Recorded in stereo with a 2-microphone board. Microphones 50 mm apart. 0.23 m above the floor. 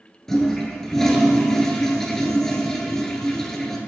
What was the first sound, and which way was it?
A toilet flushing, 10° left (ahead or behind).